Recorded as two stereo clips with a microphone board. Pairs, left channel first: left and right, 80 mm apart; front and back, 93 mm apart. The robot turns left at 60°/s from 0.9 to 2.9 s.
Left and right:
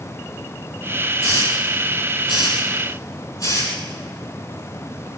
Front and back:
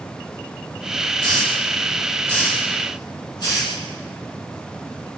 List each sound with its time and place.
1.2 s a hiss: 140° left, 10 m; by 3.7 s 40° left, 10 m